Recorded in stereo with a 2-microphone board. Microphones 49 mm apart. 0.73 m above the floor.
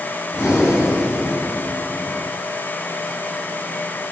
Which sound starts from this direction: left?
Breathing, at 0.3 s.